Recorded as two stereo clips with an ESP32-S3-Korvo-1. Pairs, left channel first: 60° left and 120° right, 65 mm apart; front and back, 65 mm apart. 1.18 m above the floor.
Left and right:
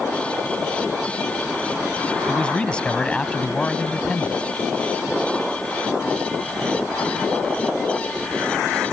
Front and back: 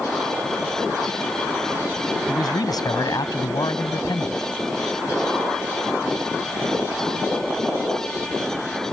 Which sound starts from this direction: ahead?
A man speaking, at 2.3 s.